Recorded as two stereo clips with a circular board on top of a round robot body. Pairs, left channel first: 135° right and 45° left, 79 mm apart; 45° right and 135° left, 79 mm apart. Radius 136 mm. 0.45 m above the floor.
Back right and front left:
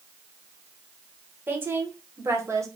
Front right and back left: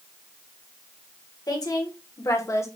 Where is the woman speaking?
15° right, 1.7 m; by 2.7 s straight ahead, 1.3 m.